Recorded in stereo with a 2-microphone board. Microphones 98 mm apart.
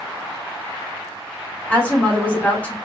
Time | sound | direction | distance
1.7 | a woman speaking | 15° left (ahead or behind) | 1.6 m